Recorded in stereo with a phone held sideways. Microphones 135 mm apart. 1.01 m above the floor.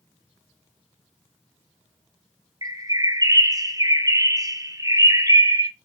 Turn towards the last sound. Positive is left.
turn(degrees=-25)  # may be behind; listen again after turning